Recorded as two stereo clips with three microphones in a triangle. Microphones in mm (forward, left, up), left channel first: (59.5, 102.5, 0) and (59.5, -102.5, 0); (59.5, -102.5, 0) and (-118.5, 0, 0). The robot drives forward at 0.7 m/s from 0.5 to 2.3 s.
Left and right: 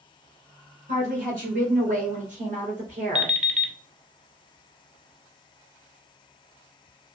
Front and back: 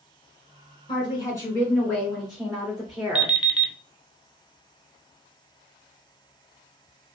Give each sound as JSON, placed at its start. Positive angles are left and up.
{"t": 0.9, "sound": "a woman speaking", "azimuth_deg": -85, "distance_m": 1.9}
{"t": 3.1, "sound": "an alarm clock", "azimuth_deg": -80, "distance_m": 0.5}